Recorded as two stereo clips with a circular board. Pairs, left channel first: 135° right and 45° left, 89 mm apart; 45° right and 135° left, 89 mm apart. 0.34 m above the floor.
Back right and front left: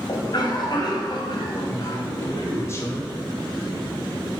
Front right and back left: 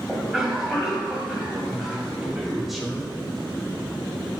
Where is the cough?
145° right, 2.5 m.